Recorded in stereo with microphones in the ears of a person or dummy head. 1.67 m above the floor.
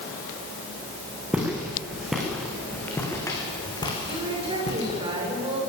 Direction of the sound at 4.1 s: 30° right (ahead or behind).